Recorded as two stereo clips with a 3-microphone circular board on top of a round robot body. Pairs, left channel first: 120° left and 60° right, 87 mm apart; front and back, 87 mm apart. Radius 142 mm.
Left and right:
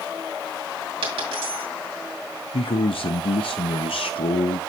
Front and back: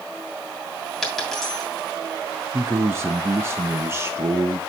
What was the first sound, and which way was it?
A dropped coin, 85° right.